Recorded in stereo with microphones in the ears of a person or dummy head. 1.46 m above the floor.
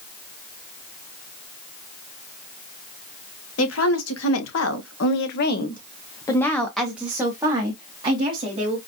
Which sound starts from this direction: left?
A woman speaking, at 3.6 s.